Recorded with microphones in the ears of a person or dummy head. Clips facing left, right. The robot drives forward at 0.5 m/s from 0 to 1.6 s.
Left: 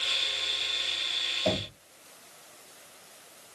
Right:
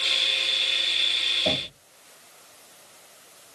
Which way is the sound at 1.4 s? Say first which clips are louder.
Even; 10° right (ahead or behind).